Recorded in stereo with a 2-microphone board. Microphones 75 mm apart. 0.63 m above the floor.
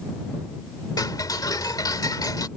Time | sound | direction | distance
1.0 | ticking | 55° left (ahead or behind) | ?